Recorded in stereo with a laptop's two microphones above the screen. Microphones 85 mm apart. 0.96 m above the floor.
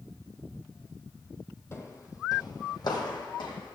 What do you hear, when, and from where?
1.7 s footsteps: 35° left (ahead or behind), 2 m; by 3.8 s 65° left (ahead or behind), 3.5 m